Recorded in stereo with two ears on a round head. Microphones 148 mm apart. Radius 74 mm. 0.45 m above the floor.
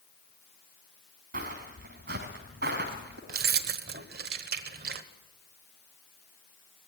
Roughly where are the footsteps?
Right.